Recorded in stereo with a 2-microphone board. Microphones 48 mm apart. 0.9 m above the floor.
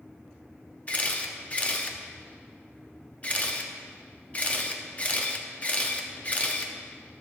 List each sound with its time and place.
0.9 s a camera shutter: 30° left (ahead or behind), 0.7 m